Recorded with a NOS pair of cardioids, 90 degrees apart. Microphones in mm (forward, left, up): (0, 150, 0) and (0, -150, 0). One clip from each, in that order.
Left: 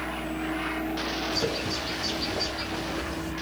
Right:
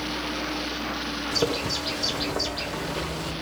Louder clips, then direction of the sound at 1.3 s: Right 6 dB; 65° right.